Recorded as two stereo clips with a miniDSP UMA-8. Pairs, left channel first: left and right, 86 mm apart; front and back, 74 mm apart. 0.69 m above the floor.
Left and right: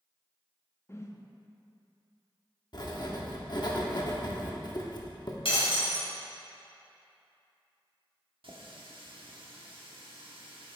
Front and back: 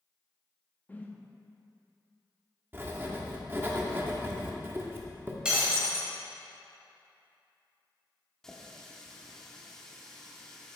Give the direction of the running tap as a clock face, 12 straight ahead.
3 o'clock.